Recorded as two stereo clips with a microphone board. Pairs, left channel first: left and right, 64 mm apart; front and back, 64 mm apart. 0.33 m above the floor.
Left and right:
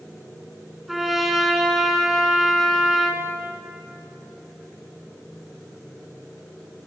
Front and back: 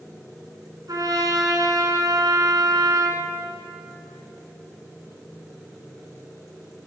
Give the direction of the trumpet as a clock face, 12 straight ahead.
6 o'clock.